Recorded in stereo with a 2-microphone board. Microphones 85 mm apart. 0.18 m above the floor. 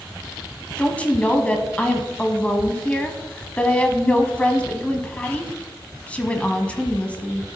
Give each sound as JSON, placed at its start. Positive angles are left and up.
{"t": 0.8, "sound": "a woman speaking", "side_deg": 15, "distance_m": 1.1}